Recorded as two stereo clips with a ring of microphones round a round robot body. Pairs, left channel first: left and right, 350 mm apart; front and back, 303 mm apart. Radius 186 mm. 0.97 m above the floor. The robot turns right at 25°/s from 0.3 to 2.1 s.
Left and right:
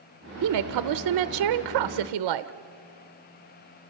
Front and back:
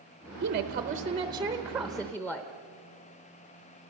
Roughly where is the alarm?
I don't hear an alarm.